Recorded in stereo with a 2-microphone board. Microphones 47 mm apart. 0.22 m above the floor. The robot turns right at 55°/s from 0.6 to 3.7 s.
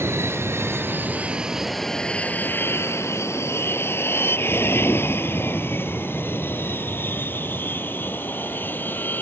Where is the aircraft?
65° right (ahead or behind); by 9.2 s 45° left (ahead or behind).